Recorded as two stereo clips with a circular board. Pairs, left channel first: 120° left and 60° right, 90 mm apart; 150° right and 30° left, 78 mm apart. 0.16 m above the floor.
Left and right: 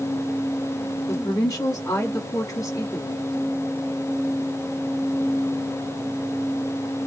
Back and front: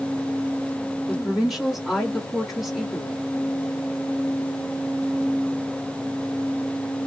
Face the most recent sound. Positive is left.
turn(degrees=115)